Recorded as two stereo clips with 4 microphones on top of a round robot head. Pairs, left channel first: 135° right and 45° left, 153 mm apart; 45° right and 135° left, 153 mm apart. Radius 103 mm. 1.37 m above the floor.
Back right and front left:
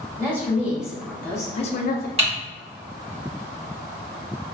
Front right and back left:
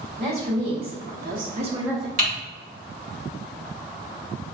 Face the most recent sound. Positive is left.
turn(degrees=100)